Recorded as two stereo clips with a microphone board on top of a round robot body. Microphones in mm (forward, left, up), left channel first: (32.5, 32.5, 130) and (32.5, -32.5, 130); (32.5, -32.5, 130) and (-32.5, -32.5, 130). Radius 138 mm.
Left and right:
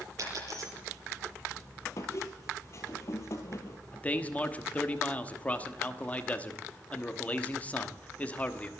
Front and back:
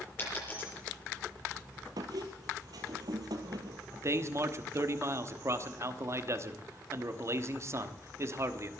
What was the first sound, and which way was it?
A dropped coin, 55° right.